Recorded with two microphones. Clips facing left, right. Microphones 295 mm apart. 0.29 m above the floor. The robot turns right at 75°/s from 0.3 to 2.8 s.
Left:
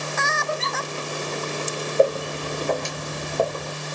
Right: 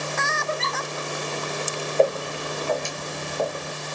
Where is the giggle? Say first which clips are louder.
Even; 15° left (ahead or behind), 0.8 m; by 0.8 s 5° right (ahead or behind), 0.8 m.